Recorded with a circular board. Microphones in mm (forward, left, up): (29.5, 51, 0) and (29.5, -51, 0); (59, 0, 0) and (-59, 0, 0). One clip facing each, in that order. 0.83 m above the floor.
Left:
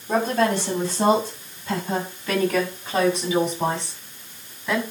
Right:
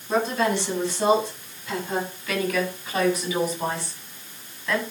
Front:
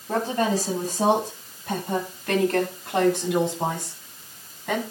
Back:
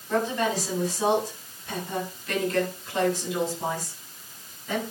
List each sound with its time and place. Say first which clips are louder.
0.1 s a woman speaking: left 2 dB, front 2 dB; 45° left, 7 m; by 4.8 s 15° left, 7.5 m